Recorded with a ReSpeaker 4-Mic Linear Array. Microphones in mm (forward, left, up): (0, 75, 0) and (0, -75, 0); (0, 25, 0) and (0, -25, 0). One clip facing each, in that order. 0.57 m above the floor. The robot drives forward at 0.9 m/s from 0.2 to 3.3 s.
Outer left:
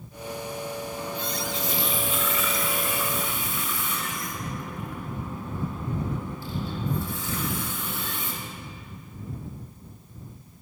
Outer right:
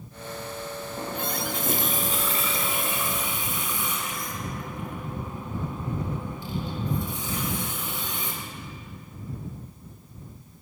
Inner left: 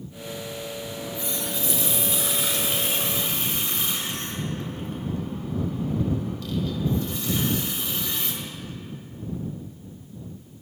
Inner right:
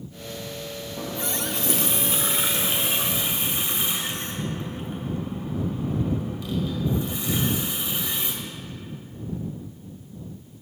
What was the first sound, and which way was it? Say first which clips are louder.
A running tap: outer right 1 dB, inner right 5 dB; 45° right (ahead or behind).